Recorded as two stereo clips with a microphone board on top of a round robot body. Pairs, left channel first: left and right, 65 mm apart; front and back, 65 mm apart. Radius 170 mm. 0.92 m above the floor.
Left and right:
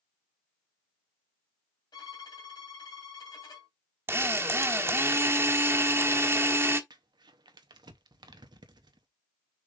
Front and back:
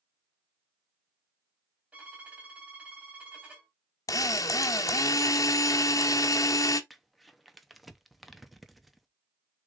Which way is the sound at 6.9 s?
90° right.